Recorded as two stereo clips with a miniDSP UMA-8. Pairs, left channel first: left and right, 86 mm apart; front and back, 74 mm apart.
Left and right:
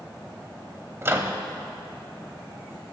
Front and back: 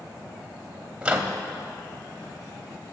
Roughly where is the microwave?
Behind right.